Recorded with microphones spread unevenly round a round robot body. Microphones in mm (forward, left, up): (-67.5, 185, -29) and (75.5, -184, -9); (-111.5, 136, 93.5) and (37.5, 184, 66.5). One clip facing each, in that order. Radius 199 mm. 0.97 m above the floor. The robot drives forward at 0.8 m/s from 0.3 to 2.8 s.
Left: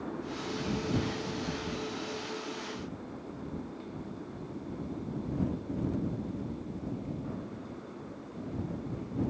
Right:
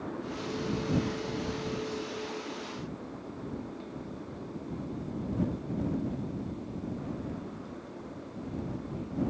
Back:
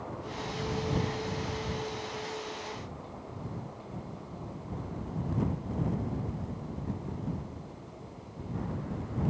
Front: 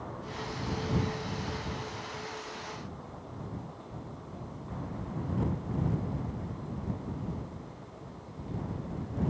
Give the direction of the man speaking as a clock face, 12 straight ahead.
I don't hear a man speaking.